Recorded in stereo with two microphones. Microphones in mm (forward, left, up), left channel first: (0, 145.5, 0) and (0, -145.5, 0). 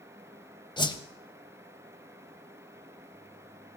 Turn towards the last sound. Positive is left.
turn(degrees=15)  # may be behind; listen again after turning